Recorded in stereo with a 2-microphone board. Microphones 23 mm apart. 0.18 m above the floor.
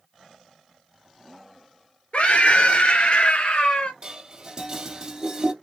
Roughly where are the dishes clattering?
Right.